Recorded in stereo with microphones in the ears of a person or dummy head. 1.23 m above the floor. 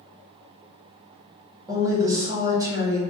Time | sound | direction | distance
1.7 | a woman speaking | 20° right (ahead or behind) | 0.8 m